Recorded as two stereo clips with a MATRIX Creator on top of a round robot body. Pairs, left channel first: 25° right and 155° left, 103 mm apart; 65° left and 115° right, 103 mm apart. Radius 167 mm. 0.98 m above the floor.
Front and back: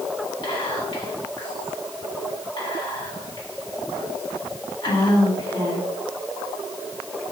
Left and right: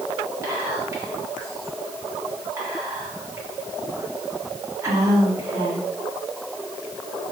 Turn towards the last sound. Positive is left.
turn(degrees=-55)